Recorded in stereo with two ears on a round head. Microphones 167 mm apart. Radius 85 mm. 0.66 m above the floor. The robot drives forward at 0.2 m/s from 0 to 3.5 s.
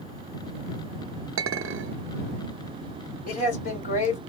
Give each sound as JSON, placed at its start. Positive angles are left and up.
{"t": 1.4, "sound": "a clink", "side_deg": -85, "distance_m": 0.7}
{"t": 3.3, "sound": "a man speaking", "side_deg": 45, "distance_m": 2.0}